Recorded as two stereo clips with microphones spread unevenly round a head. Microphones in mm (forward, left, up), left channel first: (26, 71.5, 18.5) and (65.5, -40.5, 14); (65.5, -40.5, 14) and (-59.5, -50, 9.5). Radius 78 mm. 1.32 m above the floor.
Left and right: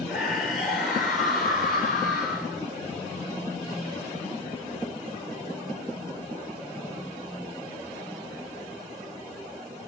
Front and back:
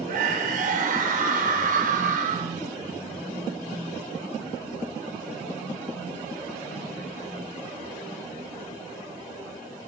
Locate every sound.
0.1 s a scream: 160° right, 6 m